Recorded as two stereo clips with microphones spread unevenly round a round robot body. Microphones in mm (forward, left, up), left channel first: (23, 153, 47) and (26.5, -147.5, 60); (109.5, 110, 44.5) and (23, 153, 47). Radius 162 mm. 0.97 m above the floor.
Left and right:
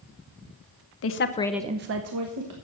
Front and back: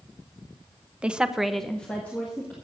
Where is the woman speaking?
75° left, 1.0 m; by 2.5 s 100° right, 1.5 m.